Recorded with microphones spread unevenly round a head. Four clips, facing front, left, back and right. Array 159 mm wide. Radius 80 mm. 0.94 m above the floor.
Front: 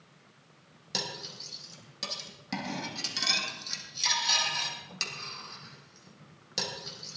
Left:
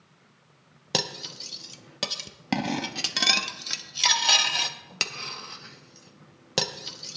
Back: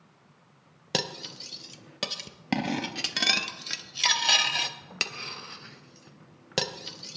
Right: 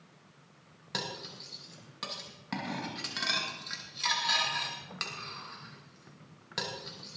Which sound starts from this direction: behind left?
Cutlery clinking, at 0.9 s.